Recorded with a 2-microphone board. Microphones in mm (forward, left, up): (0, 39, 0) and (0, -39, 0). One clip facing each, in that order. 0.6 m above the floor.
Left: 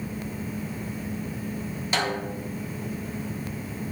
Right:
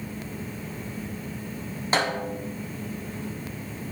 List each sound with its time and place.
1.9 s a snare drum: 35° right (ahead or behind), 1.3 m